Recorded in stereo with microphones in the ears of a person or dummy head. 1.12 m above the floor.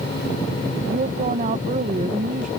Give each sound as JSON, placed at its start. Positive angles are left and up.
{"t": 0.9, "sound": "a woman speaking", "side_deg": -35}